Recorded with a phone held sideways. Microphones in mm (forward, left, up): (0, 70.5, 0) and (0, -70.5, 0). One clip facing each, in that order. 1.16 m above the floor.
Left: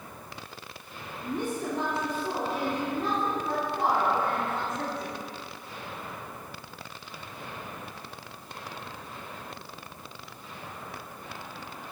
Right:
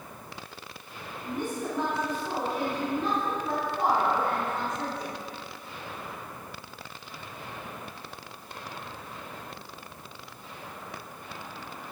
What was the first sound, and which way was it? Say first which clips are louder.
A woman speaking: left 1 dB; 30° left (ahead or behind).